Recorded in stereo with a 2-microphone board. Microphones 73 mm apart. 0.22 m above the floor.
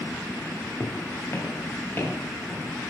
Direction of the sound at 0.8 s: 50° left (ahead or behind).